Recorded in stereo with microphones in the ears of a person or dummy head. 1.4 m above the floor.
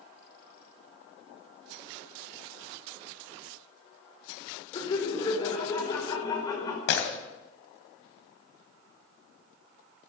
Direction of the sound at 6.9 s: 75° left (ahead or behind).